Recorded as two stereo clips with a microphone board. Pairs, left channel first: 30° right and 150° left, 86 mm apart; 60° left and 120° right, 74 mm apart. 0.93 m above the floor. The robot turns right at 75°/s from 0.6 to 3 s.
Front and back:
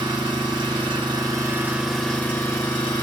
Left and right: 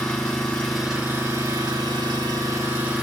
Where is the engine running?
140° left, 1.5 m; by 3.0 s 40° right, 1.5 m.